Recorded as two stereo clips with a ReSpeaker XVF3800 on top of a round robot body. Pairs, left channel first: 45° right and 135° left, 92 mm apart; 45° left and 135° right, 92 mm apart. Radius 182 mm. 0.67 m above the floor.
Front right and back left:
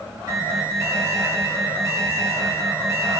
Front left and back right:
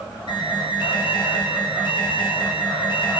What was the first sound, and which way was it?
An alarm, 75° left.